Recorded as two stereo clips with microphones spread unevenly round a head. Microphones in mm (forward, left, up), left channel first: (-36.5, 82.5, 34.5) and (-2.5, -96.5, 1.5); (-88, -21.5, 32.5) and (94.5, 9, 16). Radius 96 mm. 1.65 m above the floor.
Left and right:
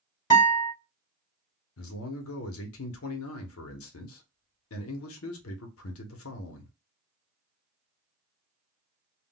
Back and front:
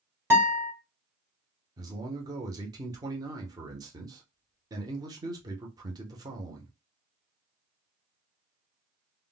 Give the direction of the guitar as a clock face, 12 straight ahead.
9 o'clock.